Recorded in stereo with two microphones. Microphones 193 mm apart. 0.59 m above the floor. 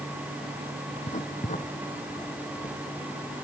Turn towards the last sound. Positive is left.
turn(degrees=40)  # may be behind; listen again after turning